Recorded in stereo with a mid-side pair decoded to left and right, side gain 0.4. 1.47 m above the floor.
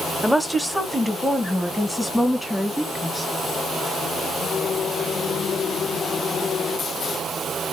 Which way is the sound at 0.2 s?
Straight ahead.